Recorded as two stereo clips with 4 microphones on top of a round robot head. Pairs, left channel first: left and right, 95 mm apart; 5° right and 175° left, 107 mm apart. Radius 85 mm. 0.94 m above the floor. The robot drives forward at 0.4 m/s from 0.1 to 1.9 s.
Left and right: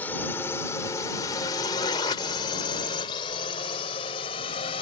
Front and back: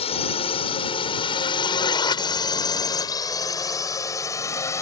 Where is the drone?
15° left; by 4.8 s 55° left.